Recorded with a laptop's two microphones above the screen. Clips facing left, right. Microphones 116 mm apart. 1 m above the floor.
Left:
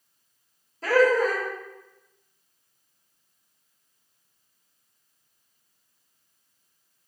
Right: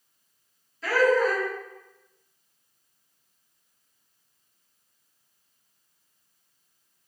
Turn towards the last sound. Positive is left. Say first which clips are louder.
# left 2 dB
turn(degrees=45)  # may be behind; listen again after turning